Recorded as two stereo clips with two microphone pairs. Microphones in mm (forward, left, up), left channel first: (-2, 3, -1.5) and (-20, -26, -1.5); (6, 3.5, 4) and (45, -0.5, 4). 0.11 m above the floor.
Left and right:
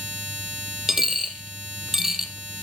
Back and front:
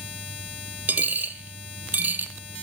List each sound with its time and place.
0.9 s a dropped coin: 45° right, 1.7 m